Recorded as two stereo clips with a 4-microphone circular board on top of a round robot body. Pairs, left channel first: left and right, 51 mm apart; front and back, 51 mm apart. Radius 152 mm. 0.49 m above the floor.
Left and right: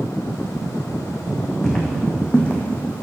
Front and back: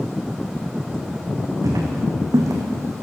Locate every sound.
1.6 s footsteps: 170° left, 2.5 m; by 3.0 s 145° left, 1.9 m